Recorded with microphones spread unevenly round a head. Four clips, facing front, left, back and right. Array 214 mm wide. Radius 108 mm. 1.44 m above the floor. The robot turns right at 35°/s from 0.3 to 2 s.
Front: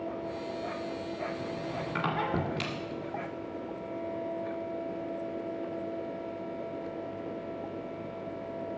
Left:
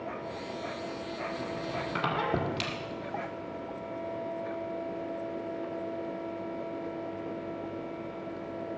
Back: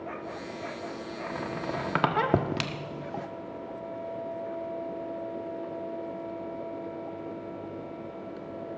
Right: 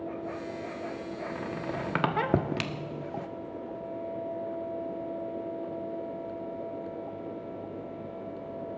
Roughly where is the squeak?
Behind.